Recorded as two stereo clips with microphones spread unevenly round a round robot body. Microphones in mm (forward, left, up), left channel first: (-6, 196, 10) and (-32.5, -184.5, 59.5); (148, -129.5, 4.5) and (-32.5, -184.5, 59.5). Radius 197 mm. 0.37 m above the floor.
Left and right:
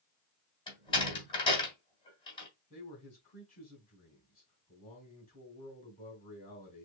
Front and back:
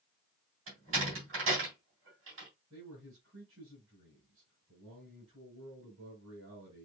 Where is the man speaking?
155° left, 3.5 m.